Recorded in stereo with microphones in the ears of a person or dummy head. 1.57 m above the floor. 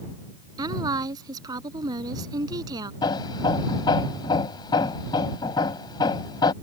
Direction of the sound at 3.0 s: 25° left (ahead or behind).